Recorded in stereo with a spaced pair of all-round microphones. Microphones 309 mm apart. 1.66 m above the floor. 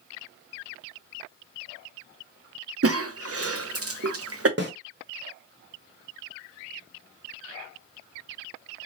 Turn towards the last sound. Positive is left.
turn(degrees=-35)  # may be behind; listen again after turning